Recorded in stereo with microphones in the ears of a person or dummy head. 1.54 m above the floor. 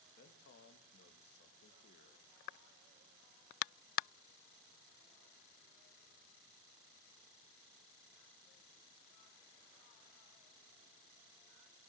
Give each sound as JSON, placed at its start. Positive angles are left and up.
{"t": 0.2, "sound": "a man speaking", "side_deg": 50, "distance_m": 2.0}